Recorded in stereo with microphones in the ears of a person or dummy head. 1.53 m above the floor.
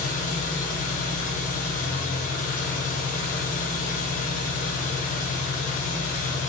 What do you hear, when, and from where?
0.0 s an engine running: 50° left (ahead or behind), 1.2 m